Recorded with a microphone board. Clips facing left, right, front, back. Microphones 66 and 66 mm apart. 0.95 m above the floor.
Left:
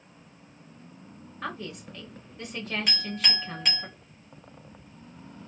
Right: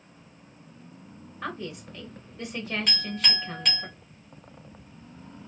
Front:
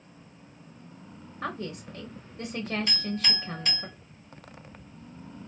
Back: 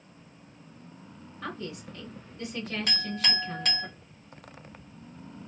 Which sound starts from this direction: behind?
A clink, at 2.9 s.